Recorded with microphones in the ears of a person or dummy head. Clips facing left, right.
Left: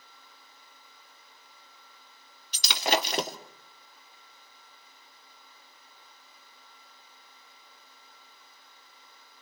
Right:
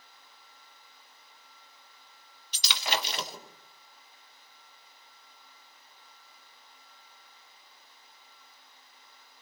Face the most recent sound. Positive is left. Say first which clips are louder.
# left 6 dB
turn(degrees=40)  # may be behind; listen again after turning